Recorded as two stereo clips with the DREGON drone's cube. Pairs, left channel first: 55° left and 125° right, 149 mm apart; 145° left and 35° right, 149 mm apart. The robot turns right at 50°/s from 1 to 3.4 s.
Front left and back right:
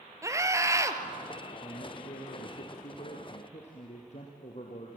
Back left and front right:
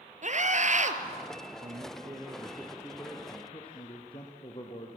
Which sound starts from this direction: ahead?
A man speaking, at 1.6 s.